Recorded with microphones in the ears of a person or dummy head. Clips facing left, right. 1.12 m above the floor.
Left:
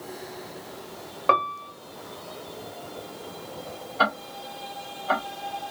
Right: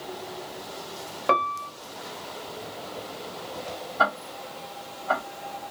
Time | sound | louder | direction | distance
1.3 | a piano | even | 5° right (ahead or behind) | 0.7 m
4.0 | ticking | left 1 dB | 40° left (ahead or behind) | 1.8 m